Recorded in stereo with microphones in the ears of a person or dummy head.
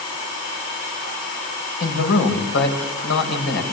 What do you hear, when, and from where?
1.8 s a man speaking: 85° left, 6.5 m